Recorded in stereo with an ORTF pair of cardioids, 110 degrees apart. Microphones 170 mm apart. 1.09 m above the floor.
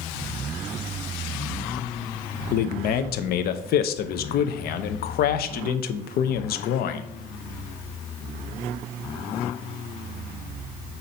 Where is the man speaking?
70° left, 0.7 m.